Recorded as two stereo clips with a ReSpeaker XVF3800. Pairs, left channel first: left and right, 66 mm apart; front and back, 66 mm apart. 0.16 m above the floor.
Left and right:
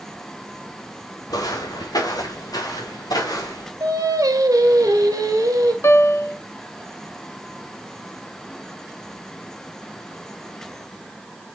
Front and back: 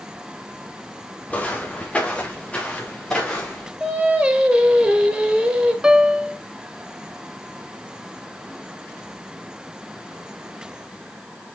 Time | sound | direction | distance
1.3 | footsteps | 70° left | 2.5 m
3.8 | singing | 110° right | 1.6 m
5.8 | a piano | 110° left | 0.7 m